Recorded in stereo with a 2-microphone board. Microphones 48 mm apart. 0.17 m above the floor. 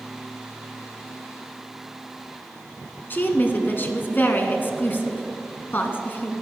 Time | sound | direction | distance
3.1 | a woman speaking | 40° left (ahead or behind) | 1.5 m